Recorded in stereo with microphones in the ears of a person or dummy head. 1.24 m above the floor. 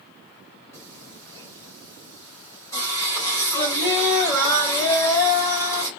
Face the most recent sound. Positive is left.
turn(degrees=15)  # may be behind; listen again after turning